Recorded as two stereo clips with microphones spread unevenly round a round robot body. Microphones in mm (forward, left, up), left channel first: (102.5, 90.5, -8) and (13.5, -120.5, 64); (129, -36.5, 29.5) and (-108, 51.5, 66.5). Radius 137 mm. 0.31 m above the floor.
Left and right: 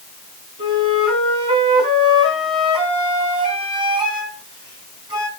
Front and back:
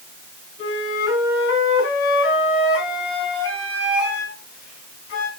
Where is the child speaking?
No child speaking in this recording.